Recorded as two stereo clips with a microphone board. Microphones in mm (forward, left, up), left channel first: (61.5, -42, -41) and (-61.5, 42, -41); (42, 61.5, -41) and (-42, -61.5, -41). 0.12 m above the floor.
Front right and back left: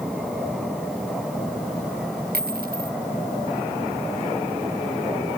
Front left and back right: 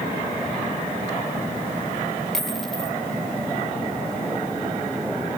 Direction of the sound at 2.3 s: 145° left.